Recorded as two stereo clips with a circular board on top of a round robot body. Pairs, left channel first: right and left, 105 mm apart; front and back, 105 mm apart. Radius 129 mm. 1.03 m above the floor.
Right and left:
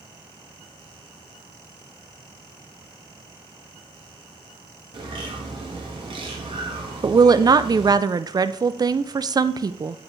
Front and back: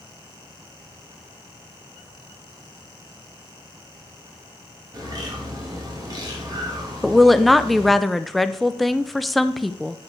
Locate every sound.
4.9 s a bird: 125° left, 1.6 m
7.0 s a woman speaking: 90° left, 0.5 m